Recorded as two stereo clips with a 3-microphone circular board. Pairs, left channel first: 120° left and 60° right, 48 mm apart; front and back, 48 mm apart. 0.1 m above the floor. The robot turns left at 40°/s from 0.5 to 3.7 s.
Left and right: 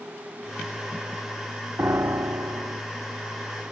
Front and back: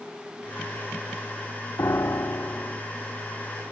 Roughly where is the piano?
Ahead.